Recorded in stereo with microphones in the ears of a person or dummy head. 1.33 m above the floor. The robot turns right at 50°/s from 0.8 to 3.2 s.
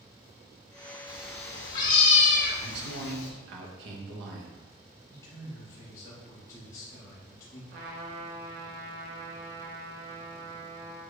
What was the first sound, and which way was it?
A cat meowing, 10° right.